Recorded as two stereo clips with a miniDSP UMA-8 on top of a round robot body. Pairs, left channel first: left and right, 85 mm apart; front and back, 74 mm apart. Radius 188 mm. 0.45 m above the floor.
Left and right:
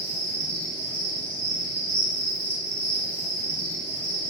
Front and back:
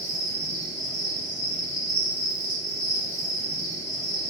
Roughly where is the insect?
Ahead left.